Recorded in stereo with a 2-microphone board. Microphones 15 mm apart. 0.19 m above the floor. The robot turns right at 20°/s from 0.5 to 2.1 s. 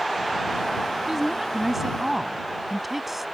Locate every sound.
1.1 s a woman speaking: 25° right (ahead or behind); by 3.2 s 20° right (ahead or behind)